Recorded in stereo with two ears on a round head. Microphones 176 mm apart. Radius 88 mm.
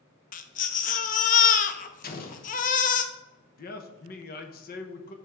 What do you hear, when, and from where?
0.3 s a baby crying: 40° left (ahead or behind), 0.5 m
2.0 s an explosion: 45° left (ahead or behind), 0.8 m
3.6 s a man speaking: 45° left (ahead or behind), 0.8 m